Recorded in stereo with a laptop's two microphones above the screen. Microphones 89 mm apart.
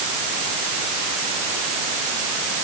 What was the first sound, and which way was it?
Only background noise.